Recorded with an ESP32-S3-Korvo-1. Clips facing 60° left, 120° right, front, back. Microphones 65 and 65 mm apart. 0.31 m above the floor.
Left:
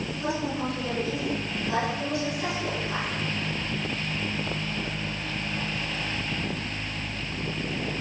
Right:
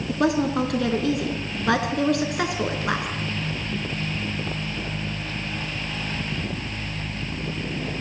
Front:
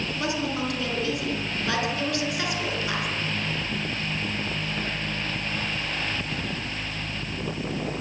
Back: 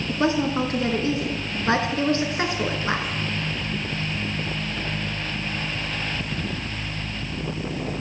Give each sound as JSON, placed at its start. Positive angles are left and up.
{"t": 0.1, "sound": "a woman speaking", "azimuth_deg": -125, "distance_m": 3.5}